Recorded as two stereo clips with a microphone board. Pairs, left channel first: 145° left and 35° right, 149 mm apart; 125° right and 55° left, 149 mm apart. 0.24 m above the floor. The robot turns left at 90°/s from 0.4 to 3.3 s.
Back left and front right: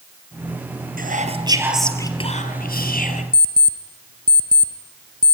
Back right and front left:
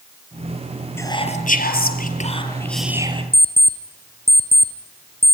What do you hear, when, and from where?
1.0 s whispering: 50° right, 4.5 m; by 3.2 s 105° left, 4.5 m
3.3 s an alarm clock: 20° right, 2 m